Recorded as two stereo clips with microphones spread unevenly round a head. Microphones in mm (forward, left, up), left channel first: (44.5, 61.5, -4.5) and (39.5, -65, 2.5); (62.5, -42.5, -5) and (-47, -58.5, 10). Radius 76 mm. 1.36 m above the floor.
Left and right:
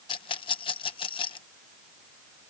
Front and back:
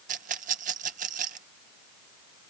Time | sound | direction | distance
0.1 | a rattle | 150° left | ?